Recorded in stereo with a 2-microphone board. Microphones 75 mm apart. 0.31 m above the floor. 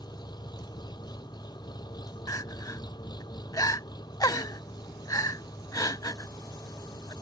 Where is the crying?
50° left (ahead or behind).